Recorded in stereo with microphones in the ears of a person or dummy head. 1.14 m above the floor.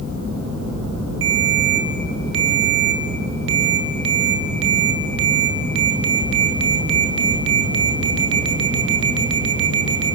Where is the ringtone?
70° right (ahead or behind), 2 m.